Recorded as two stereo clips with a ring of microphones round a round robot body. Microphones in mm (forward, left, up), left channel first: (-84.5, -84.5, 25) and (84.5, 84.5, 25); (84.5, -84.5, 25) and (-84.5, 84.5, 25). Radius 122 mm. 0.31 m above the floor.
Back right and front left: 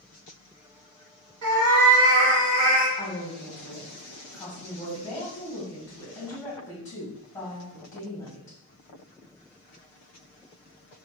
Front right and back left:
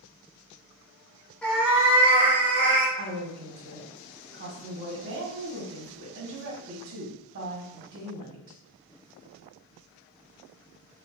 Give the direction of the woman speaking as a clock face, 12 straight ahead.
7 o'clock.